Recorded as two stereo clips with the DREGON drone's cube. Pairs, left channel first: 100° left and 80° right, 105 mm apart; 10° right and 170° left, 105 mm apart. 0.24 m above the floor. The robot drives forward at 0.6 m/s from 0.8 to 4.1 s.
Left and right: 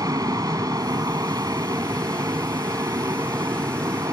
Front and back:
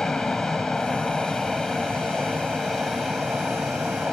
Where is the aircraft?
95° right; by 4.1 s 105° right.